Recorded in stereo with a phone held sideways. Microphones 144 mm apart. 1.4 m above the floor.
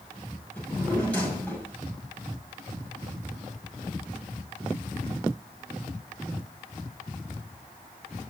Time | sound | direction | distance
0.6 | a drawer | 10° left (ahead or behind) | 6 m